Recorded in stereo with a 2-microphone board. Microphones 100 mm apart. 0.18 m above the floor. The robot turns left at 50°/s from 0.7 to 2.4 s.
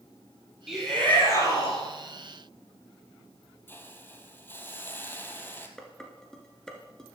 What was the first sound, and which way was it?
A shout, straight behind.